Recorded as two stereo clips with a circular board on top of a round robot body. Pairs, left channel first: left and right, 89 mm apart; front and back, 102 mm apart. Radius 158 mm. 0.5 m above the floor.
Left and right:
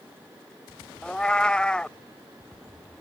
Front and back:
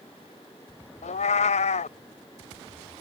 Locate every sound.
1.0 s a cat meowing: 10° left